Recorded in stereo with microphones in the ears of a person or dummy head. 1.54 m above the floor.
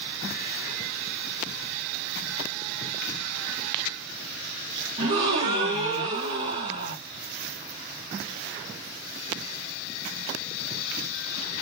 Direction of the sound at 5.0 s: 25° right (ahead or behind).